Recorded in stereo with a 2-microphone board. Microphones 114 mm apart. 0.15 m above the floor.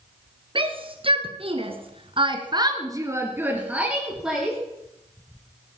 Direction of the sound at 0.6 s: 50° right (ahead or behind).